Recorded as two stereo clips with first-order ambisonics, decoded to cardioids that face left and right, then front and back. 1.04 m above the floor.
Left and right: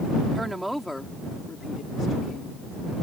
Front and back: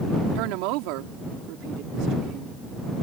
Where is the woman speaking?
170° right; by 2.6 s 140° left.